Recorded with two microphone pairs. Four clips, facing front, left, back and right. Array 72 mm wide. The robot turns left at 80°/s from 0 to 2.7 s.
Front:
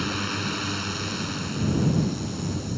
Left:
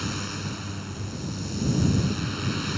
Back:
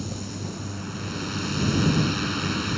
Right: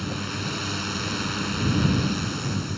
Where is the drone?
15° left; by 2.8 s 155° left.